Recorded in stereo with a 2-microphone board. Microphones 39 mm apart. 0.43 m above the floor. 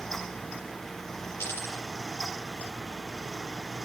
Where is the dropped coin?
85° left, 5.5 m.